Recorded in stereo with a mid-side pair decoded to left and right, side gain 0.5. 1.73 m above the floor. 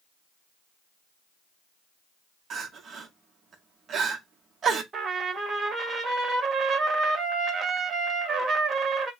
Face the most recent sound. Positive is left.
turn(degrees=-45)